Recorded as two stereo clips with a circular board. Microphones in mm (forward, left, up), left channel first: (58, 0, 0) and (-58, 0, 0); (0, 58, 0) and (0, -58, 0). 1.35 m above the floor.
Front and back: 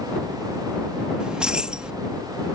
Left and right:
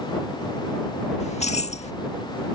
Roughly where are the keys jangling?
Left.